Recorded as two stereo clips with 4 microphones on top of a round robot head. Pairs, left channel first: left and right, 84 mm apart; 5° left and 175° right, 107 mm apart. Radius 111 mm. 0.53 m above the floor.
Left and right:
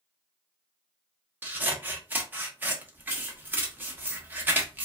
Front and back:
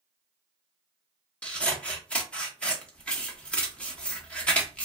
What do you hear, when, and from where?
1.4 s scissors: 60° right, 1.0 m